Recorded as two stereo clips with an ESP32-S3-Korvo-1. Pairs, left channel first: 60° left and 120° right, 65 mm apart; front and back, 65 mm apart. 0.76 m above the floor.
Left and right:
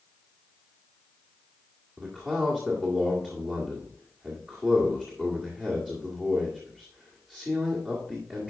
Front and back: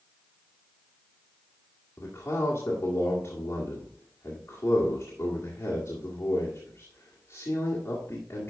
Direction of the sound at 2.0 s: 45° right.